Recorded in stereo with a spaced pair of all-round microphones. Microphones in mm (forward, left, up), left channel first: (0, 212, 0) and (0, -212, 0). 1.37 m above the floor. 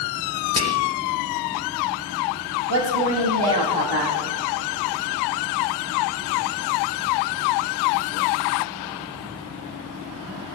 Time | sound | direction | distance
0.6 | whispering | 40° left (ahead or behind) | 0.5 m
2.7 | a woman speaking | 65° right (ahead or behind) | 2.5 m